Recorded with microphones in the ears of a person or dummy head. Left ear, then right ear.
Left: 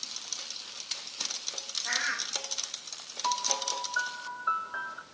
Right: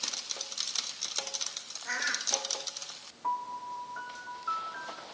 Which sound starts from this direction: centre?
A bird, at 1.9 s.